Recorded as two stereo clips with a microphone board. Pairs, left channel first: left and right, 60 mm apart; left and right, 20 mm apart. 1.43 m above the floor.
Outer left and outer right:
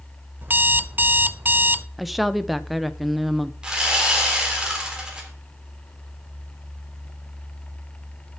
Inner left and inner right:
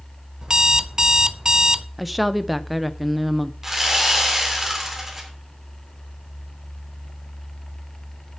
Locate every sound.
0.4 s an alarm clock: 35° right (ahead or behind), 0.6 m
2.0 s a woman speaking: centre (ahead or behind), 0.8 m
3.6 s sawing: 15° right (ahead or behind), 3 m